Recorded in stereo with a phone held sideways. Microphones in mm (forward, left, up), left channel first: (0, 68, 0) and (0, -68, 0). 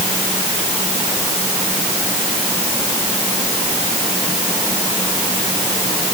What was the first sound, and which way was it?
Only background noise.